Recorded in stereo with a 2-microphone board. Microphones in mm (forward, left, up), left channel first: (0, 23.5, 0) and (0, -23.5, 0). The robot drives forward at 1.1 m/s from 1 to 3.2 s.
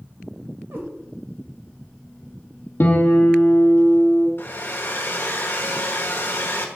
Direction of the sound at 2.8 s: 55° left (ahead or behind).